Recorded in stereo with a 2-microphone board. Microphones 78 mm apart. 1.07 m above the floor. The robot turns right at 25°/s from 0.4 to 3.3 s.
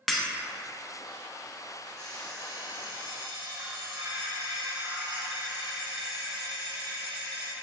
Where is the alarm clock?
145° right, 1.3 m; by 7.5 s 115° right, 1.3 m.